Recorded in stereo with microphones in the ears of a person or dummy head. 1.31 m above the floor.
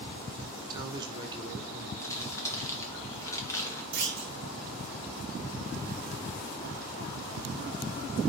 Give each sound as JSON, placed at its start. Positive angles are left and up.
{"t": 0.7, "sound": "a man speaking", "side_deg": -25, "distance_m": 0.7}
{"t": 2.0, "sound": "crumpling", "side_deg": 20, "distance_m": 0.7}
{"t": 3.9, "sound": "a clunk", "side_deg": -60, "distance_m": 1.2}